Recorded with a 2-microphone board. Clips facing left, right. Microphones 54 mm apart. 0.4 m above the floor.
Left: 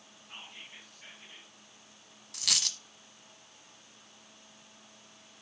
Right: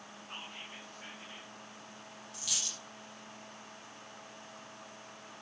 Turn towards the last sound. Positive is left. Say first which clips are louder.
# left 7 dB
turn(degrees=80)